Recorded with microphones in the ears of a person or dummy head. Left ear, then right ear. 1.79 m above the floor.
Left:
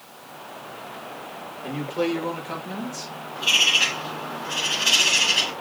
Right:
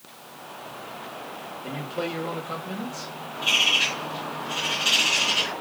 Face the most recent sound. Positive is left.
turn(degrees=0)  # may be behind; listen again after turning